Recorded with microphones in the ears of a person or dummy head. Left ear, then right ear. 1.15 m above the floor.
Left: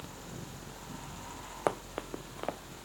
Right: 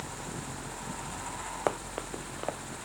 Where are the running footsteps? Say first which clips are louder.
Even; 20° right (ahead or behind).